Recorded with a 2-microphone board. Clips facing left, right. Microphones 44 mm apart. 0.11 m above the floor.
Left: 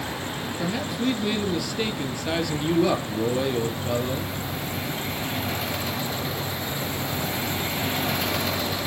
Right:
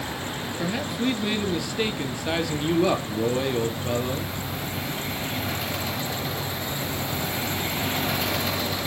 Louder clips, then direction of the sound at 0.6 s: Even; 15° right (ahead or behind).